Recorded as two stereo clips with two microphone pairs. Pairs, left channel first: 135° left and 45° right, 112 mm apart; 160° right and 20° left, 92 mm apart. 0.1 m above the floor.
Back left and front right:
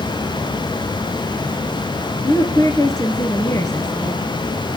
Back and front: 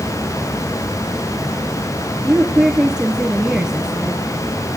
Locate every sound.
2.2 s a woman speaking: 100° left, 1.5 m